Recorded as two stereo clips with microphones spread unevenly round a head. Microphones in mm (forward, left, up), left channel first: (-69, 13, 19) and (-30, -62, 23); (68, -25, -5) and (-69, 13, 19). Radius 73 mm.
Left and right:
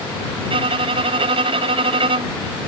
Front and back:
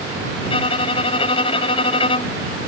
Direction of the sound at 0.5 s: 70° right.